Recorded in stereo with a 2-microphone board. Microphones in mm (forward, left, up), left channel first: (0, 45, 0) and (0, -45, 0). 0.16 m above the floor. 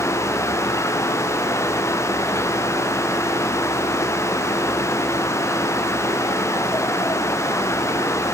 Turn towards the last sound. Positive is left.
No sound to turn to.